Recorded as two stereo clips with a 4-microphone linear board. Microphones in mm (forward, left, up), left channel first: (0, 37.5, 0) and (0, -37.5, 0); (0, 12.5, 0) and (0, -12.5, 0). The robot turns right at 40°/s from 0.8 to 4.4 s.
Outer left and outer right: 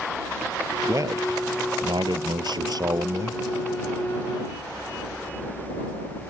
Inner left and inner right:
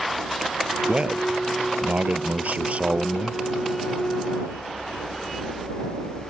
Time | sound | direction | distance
0.9 | a man speaking | 135° right | ?